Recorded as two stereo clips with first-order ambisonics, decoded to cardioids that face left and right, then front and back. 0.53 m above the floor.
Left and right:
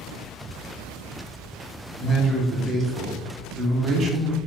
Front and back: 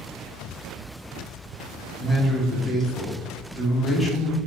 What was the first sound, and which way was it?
A man speaking, 65° right.